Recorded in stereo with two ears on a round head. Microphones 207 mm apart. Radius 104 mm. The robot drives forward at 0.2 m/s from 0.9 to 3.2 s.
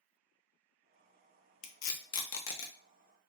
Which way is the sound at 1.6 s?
75° left (ahead or behind).